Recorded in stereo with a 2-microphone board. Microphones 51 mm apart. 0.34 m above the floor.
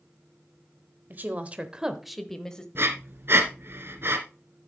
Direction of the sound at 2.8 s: 55° right (ahead or behind).